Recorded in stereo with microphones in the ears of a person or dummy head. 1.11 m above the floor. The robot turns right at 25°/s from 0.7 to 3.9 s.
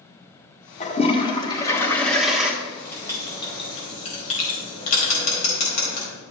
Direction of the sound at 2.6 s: 5° left (ahead or behind).